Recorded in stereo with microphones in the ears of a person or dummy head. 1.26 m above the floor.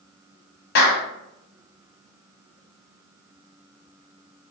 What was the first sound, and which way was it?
A clap, 50° left (ahead or behind).